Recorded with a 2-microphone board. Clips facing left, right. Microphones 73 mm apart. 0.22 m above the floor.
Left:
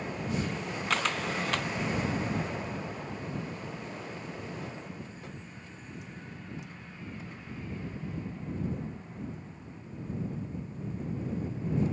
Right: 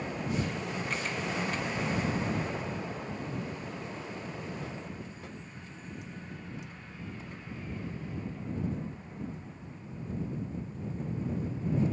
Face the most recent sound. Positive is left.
turn(degrees=85)